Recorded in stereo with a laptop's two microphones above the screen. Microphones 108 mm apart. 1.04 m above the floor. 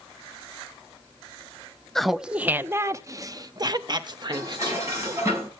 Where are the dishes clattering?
30° right (ahead or behind), 6 m.